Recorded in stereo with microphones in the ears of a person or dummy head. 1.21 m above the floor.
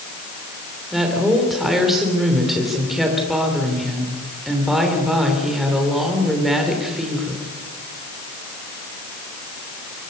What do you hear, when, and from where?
0.9 s a woman speaking: centre (ahead or behind), 3 m